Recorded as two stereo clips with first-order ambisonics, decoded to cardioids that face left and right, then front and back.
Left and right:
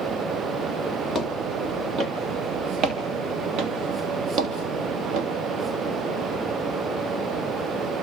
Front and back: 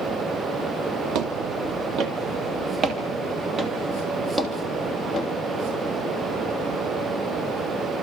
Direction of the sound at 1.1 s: 160° right.